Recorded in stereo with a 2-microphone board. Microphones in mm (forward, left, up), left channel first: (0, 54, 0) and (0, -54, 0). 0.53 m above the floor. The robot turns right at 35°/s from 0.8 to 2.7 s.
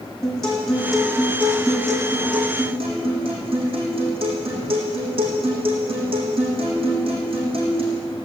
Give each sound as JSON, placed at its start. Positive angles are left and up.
{"t": 0.2, "sound": "a guitar", "azimuth_deg": 175, "distance_m": 6.0}